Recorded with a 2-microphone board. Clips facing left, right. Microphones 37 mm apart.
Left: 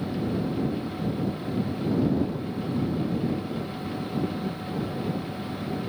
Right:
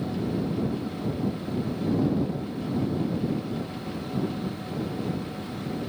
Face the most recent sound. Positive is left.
No sound to turn to.